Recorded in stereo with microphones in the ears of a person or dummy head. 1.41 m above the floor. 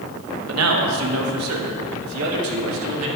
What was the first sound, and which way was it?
A man speaking, 85° right.